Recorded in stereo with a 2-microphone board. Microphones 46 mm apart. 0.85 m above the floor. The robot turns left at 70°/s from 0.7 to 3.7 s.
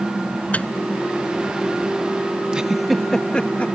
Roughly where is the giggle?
Right.